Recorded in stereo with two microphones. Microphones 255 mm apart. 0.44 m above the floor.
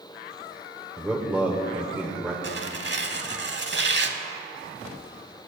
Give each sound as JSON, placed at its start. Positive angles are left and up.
{"t": 1.0, "sound": "a man speaking", "side_deg": -5, "distance_m": 1.0}
{"t": 2.4, "sound": "tearing paper", "side_deg": -45, "distance_m": 0.7}